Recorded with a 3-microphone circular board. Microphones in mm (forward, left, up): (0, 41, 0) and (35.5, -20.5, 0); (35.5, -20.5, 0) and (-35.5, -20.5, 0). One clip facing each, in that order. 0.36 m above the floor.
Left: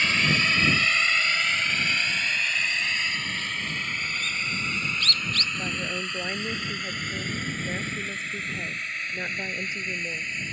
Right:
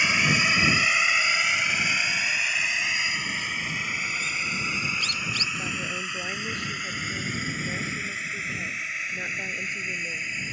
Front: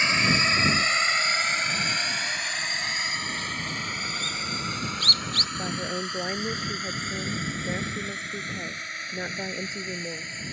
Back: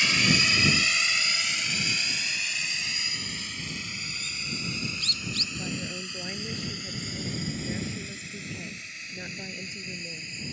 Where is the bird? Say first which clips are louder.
Right 1 dB, front 6 dB; 20° left.